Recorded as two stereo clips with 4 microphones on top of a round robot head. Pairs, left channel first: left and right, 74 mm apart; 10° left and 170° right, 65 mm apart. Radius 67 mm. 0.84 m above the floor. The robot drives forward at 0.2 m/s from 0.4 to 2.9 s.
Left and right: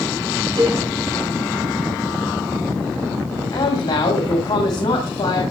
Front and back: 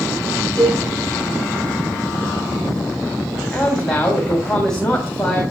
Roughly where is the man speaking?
Left.